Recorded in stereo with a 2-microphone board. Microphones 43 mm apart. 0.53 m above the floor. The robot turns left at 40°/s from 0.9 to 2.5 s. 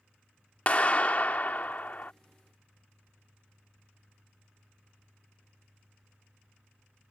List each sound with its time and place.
0.7 s a clap: 125° left; by 2.1 s 75° left